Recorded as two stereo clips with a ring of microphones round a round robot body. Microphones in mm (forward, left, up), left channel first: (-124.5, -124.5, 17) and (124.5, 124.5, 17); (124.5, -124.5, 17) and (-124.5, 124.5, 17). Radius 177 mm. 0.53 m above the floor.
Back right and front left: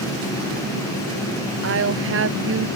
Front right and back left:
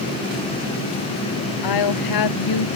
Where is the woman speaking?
10° right.